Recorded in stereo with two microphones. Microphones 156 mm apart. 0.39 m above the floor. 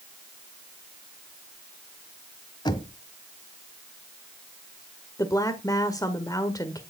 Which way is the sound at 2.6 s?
30° left (ahead or behind).